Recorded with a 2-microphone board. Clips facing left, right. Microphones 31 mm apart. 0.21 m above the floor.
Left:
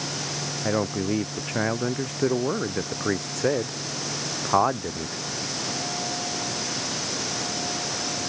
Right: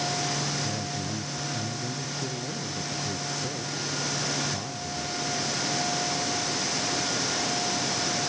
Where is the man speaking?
75° left (ahead or behind).